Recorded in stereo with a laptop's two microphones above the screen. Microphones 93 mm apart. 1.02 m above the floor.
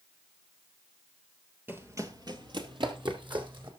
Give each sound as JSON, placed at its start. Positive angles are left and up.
{"t": 1.7, "sound": "running footsteps", "side_deg": -20, "distance_m": 1.5}